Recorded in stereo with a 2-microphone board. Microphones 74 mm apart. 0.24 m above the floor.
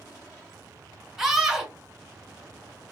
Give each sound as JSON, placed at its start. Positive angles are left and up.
{"t": 1.2, "sound": "a scream", "side_deg": -5, "distance_m": 1.5}